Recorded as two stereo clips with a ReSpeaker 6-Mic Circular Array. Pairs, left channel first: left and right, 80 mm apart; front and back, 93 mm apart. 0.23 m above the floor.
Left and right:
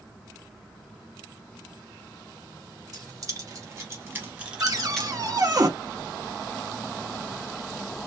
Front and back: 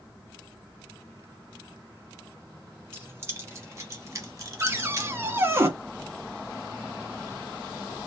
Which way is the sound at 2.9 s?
120° right.